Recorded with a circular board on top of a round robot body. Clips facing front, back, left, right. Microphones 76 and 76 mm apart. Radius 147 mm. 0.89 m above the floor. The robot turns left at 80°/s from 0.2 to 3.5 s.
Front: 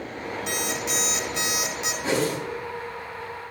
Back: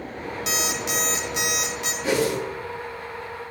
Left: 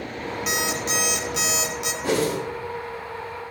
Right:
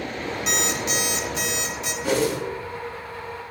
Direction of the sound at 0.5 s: Straight behind.